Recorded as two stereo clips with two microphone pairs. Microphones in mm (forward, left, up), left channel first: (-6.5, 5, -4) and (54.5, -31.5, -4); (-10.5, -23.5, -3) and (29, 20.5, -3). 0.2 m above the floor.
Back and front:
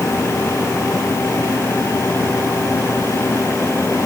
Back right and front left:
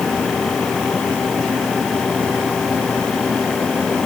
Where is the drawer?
I don't hear a drawer.